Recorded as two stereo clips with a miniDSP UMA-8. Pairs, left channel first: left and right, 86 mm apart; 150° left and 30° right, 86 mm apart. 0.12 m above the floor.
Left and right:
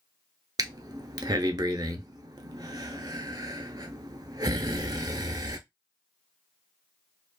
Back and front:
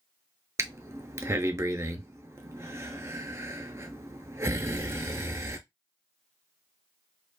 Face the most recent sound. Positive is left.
turn(degrees=-75)